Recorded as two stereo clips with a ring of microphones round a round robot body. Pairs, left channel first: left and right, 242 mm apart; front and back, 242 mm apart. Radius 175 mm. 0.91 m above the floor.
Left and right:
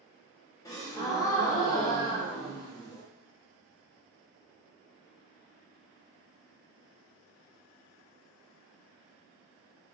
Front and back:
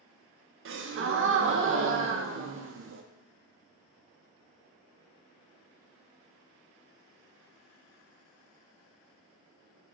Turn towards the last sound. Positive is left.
turn(degrees=165)